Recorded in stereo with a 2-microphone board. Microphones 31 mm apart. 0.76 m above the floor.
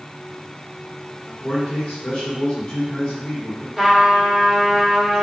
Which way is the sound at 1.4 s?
45° left (ahead or behind).